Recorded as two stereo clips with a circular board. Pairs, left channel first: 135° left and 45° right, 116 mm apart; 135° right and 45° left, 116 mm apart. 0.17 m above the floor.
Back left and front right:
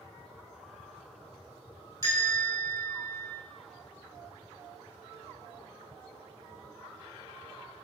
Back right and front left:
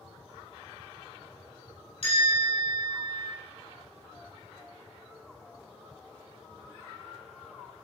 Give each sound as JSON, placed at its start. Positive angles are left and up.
{"t": 2.0, "sound": "a bell", "azimuth_deg": -160, "distance_m": 4.0}